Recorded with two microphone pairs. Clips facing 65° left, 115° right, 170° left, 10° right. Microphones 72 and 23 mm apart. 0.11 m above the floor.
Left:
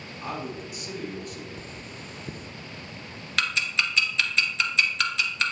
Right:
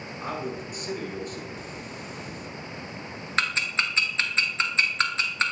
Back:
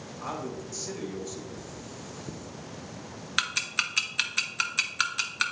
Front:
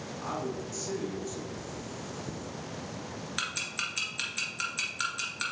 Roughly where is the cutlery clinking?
Left.